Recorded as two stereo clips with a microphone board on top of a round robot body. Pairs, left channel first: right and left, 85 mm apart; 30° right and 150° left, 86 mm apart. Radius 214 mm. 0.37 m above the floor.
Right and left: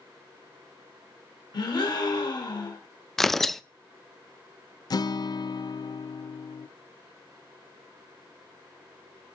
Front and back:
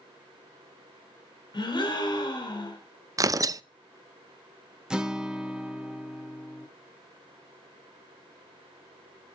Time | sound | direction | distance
1.5 | a gasp | 60° right | 2.5 m
3.2 | tearing paper | 175° right | 0.6 m
4.9 | a guitar | 130° right | 0.7 m